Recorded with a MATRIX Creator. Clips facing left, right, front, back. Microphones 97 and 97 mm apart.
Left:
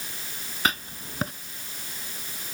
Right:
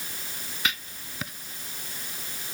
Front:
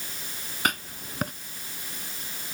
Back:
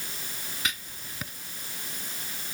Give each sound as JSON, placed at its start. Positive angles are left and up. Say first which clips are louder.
{"t": 0.7, "sound": "writing", "louder": "left 5 dB, front 8 dB", "azimuth_deg": 40}